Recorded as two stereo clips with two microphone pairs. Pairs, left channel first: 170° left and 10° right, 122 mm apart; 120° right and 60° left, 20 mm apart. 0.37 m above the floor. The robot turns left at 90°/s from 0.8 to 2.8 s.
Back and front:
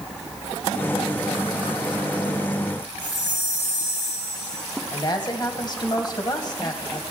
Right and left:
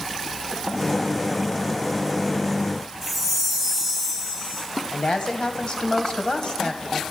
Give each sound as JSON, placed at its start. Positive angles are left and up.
{"t": 3.0, "sound": "a chime", "azimuth_deg": 165, "distance_m": 3.5}
{"t": 4.9, "sound": "a woman speaking", "azimuth_deg": -145, "distance_m": 2.0}